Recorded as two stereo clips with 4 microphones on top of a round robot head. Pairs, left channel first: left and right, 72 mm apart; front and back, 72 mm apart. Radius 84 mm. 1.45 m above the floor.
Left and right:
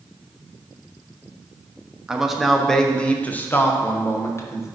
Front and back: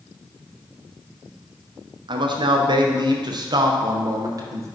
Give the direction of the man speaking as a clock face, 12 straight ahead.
6 o'clock.